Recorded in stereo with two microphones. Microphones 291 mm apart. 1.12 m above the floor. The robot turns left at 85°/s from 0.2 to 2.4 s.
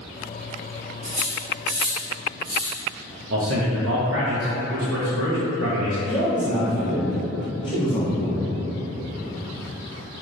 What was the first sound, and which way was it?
Cutlery clinking, 30° right (ahead or behind).